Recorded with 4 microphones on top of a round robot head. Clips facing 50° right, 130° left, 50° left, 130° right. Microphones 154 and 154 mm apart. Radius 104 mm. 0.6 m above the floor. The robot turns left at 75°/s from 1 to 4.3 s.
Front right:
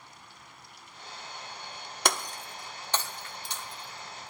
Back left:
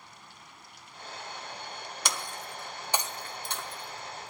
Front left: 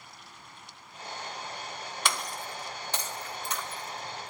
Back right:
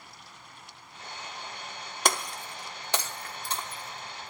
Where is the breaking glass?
80° right, 0.8 m; by 4.3 s 110° left, 0.8 m.